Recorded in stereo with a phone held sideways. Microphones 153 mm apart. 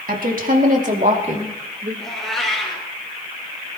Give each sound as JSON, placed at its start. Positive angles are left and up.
{"t": 0.1, "sound": "a woman speaking", "side_deg": -70, "distance_m": 2.5}
{"t": 2.0, "sound": "a cat meowing", "side_deg": 0, "distance_m": 5.0}